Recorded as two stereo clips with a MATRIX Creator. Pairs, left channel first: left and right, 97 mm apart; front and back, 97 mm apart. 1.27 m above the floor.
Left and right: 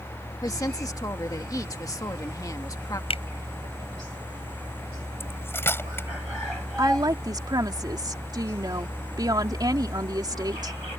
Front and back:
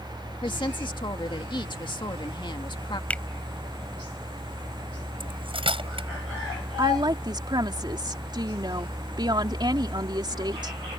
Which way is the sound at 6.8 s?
135° right.